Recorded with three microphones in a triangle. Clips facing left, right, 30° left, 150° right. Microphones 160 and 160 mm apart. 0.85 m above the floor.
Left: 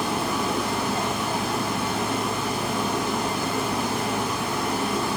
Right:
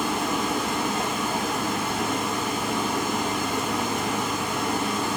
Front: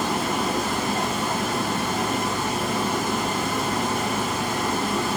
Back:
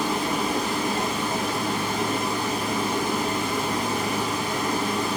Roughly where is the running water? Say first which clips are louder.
Even, front 1 dB; left.